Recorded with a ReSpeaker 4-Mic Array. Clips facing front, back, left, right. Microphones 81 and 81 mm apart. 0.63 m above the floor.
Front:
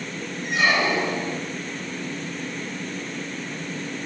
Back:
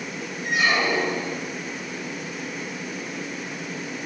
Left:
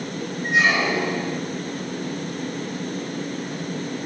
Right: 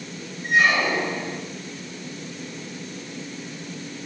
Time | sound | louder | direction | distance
0.4 | a squeak | front 1 dB, even | 20° left | 1.9 m